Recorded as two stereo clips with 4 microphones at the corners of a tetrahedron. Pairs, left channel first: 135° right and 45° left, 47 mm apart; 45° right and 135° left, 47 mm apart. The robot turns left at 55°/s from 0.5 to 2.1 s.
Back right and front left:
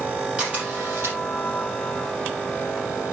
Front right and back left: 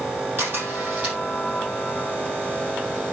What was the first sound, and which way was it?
A camera shutter, 110° left.